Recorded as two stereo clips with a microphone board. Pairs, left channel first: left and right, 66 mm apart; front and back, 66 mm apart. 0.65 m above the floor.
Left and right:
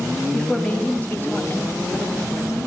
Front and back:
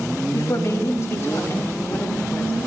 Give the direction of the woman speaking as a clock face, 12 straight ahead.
12 o'clock.